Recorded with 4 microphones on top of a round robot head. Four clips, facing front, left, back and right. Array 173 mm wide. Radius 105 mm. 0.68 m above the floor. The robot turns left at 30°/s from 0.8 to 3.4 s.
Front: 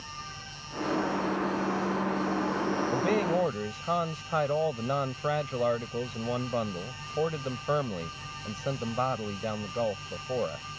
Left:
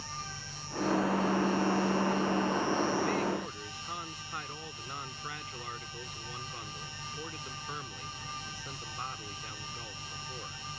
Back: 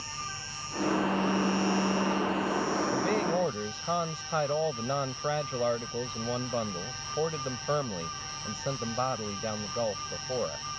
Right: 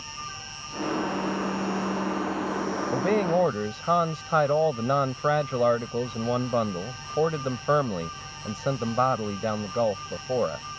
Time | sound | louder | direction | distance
0.0 | an insect | right 3 dB, back 2 dB | 150° right | ?
2.9 | a man speaking | right 8 dB, front 4 dB | 70° right | ?